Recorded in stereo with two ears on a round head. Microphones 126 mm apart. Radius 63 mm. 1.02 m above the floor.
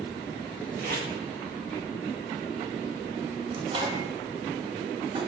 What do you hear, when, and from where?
0.8 s tape being pulled: 70° right (ahead or behind), 2 m
3.5 s a microwave: 35° right (ahead or behind), 1.4 m